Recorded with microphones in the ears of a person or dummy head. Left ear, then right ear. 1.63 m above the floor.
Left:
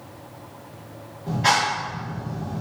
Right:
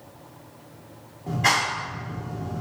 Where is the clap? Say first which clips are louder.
Left 2 dB; 25° right (ahead or behind), 3 m.